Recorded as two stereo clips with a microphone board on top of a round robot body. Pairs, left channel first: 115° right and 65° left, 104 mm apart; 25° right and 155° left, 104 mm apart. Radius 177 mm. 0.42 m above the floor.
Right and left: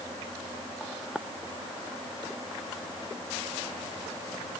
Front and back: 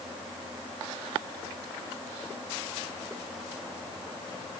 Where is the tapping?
I don't hear tapping.